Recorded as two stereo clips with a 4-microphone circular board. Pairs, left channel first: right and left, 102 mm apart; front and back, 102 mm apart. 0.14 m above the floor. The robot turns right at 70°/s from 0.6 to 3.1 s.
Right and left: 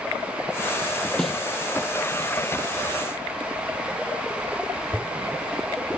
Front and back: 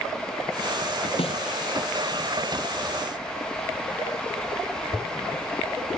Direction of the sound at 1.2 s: 5° right.